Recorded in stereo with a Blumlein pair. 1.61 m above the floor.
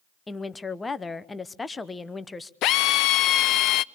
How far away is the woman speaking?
About 0.8 m.